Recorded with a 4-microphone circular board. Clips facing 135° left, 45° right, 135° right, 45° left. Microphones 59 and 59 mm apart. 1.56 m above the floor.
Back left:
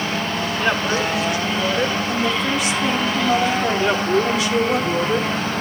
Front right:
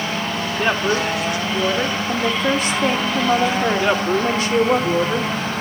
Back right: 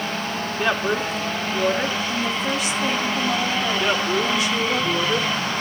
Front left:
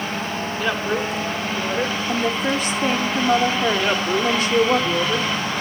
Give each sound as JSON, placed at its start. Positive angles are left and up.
{"t": 0.6, "sound": "a woman speaking", "azimuth_deg": -80, "distance_m": 3.5}
{"t": 2.1, "sound": "a woman speaking", "azimuth_deg": 0, "distance_m": 1.1}
{"t": 3.8, "sound": "a woman speaking", "azimuth_deg": -40, "distance_m": 2.5}